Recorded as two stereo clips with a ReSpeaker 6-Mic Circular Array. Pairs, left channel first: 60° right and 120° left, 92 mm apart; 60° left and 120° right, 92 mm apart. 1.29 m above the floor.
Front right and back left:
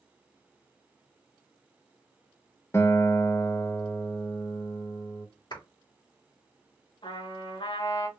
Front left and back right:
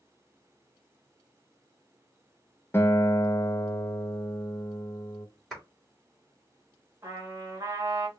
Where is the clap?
30° right, 3 m.